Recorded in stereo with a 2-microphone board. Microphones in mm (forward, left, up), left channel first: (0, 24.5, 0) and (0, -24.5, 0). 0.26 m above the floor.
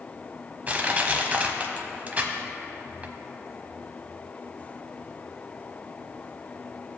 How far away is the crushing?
About 1.0 m.